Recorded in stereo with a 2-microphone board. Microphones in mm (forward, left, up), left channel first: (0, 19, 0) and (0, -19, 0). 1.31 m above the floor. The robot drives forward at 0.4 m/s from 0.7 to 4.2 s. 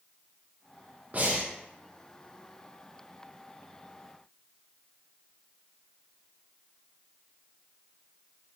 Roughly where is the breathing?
Right.